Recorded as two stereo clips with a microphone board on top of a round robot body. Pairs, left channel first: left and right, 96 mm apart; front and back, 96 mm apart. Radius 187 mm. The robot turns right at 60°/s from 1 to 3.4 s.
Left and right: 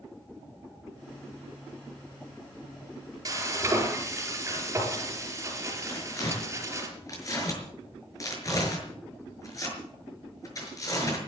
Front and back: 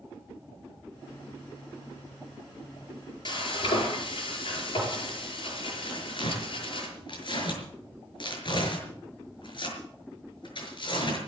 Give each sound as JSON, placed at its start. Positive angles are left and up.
{"t": 3.2, "sound": "frying", "azimuth_deg": -35, "distance_m": 5.5}
{"t": 5.9, "sound": "tearing paper", "azimuth_deg": 35, "distance_m": 6.0}